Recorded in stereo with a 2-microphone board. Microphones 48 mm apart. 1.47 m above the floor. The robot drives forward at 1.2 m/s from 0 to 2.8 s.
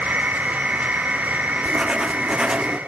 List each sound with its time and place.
1.6 s writing: 15° right (ahead or behind), 1.1 m